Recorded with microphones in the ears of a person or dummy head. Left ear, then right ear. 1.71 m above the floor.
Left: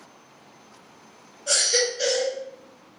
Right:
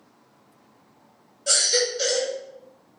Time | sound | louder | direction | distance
1.5 | a baby crying | even | 25° right (ahead or behind) | 1.3 m